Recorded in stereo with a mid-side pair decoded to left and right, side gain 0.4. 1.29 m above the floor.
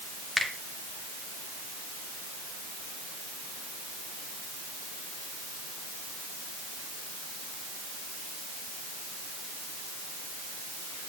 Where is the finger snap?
Straight ahead, 2 m.